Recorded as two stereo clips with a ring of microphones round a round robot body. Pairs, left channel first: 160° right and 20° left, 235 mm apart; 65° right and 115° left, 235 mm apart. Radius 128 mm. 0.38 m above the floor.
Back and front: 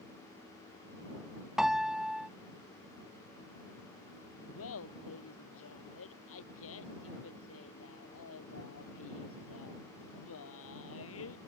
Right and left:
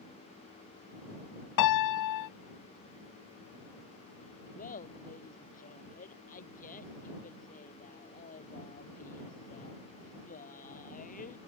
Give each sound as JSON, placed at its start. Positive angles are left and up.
{"t": 1.6, "sound": "a piano", "azimuth_deg": -65}
{"t": 4.5, "sound": "laughter", "azimuth_deg": -125}